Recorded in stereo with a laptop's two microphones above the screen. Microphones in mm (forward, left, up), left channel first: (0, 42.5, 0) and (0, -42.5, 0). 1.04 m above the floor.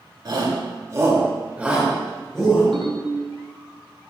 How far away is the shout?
About 2.5 m.